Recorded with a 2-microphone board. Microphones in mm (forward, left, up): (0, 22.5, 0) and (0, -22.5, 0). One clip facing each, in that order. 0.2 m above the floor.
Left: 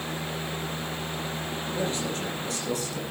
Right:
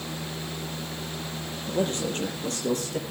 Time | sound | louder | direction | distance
1.7 | a man speaking | right 4 dB | 45° right (ahead or behind) | 6.5 m